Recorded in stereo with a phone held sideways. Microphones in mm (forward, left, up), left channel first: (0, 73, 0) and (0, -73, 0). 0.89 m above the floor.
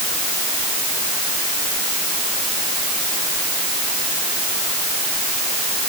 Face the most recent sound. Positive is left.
No sound to turn to.